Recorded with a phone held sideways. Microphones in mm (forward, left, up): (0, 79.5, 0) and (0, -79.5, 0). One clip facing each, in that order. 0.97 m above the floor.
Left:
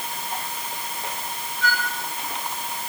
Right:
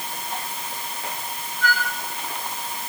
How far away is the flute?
About 5.5 m.